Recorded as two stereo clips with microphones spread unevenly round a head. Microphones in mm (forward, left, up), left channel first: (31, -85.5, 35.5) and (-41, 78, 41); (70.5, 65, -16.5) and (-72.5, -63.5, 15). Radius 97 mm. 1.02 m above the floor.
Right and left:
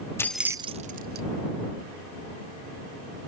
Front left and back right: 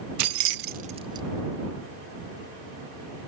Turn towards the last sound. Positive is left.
turn(degrees=150)